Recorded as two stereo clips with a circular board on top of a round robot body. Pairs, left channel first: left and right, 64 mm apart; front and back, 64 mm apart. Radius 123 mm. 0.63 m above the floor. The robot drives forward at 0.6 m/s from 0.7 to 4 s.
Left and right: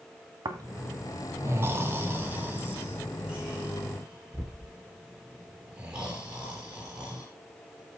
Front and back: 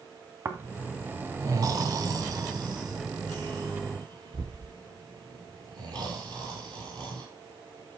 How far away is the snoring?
About 0.9 m.